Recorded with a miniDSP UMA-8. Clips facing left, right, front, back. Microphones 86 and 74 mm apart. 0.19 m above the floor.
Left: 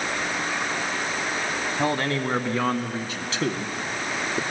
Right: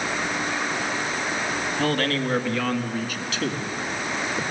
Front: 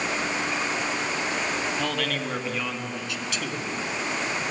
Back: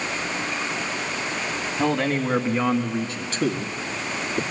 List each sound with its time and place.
1.8 s a man speaking: 145° left, 1.1 m; by 4.4 s 140° left, 2.5 m